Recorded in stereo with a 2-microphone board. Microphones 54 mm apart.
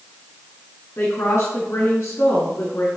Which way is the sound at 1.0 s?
55° left (ahead or behind).